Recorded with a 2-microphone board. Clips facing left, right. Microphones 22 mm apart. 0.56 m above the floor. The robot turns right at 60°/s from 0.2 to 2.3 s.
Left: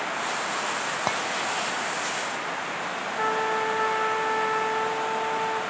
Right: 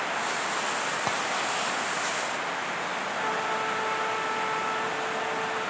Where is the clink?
20° left (ahead or behind), 0.6 m.